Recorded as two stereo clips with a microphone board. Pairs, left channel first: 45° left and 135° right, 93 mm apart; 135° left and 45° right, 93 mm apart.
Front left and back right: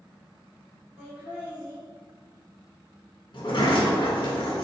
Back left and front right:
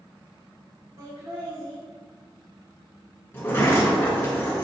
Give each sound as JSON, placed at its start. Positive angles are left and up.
{"t": 1.0, "sound": "laughter", "azimuth_deg": -65, "distance_m": 1.9}
{"t": 3.3, "sound": "a sliding door", "azimuth_deg": 75, "distance_m": 1.2}